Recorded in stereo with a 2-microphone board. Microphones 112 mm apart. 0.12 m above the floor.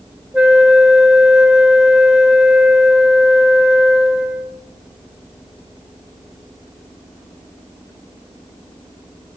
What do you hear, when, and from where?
0.3 s a flute: 10° right (ahead or behind), 0.5 m